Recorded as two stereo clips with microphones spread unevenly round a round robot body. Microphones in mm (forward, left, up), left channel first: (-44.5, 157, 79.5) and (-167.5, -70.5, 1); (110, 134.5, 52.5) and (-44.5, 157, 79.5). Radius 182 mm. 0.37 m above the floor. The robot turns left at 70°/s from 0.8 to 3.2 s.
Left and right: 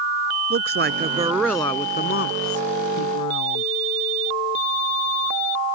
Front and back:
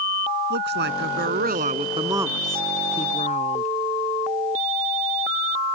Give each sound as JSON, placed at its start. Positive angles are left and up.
{"t": 0.5, "sound": "a woman speaking", "azimuth_deg": -160}